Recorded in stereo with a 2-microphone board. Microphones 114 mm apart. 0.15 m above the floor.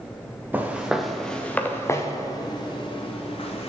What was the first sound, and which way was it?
Footsteps, 15° right (ahead or behind).